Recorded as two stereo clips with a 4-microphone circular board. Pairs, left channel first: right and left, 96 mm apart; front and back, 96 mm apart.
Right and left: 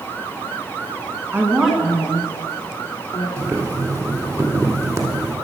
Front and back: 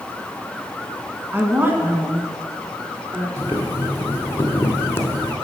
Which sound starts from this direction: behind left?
A woman speaking, at 1.3 s.